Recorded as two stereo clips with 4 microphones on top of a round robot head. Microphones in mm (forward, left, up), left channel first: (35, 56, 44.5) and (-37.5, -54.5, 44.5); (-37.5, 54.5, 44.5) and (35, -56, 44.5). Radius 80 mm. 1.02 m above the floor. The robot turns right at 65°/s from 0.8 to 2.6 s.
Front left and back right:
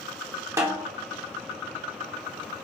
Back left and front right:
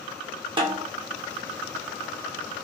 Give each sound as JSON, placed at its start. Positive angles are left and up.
{"t": 0.6, "sound": "a snare drum", "azimuth_deg": -70, "distance_m": 0.9}